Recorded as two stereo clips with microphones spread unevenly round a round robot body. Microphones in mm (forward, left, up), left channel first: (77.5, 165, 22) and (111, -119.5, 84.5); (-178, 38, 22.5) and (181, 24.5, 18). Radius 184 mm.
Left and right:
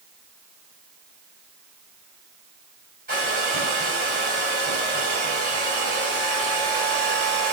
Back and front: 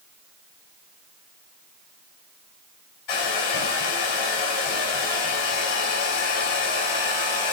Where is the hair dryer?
155° right, 5 m.